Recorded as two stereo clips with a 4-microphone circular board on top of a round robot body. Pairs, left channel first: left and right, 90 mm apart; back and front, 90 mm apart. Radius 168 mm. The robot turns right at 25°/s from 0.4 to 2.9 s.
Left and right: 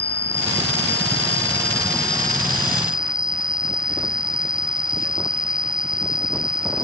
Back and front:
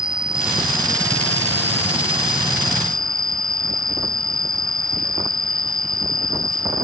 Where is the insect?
80° left; by 6.8 s 145° left.